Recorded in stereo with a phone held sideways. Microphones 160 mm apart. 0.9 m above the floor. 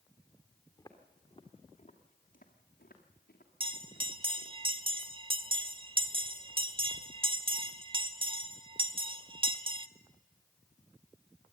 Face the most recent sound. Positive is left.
turn(degrees=-35)  # may be behind; listen again after turning